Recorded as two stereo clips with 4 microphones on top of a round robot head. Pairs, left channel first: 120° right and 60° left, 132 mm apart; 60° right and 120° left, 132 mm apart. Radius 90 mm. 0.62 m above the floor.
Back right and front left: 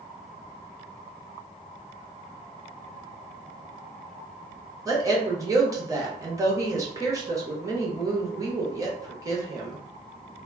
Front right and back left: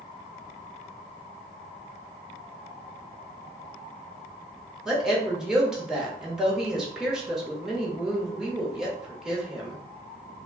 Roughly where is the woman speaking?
Ahead left.